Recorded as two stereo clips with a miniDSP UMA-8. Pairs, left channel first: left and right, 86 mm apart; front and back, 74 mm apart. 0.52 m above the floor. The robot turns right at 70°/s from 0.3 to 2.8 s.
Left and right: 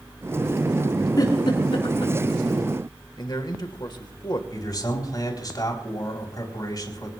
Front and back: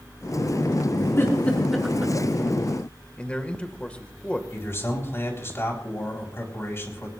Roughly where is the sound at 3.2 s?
Left.